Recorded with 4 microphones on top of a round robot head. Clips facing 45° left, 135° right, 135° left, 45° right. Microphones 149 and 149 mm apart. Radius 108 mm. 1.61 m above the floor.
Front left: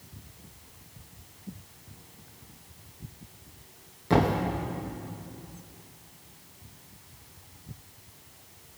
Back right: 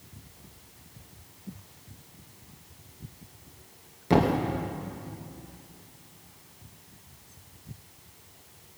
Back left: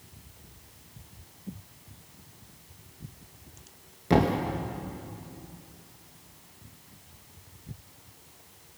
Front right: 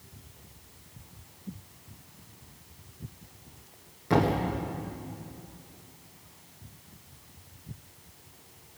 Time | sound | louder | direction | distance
4.1 | a thud | back right 1 dB, back left 1 dB | 170° left | 0.9 m